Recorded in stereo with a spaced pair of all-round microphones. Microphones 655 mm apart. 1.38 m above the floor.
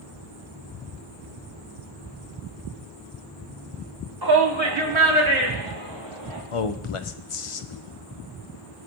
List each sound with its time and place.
4.2 s a shout: 35° right (ahead or behind), 1.2 m; by 6.4 s 55° right (ahead or behind), 3 m
6.5 s a man speaking: 50° left (ahead or behind), 0.6 m